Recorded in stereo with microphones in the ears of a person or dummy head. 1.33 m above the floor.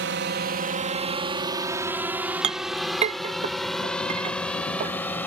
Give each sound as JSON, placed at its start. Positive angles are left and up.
{"t": 0.0, "sound": "a drone", "side_deg": -55}
{"t": 2.4, "sound": "a clink", "side_deg": -40}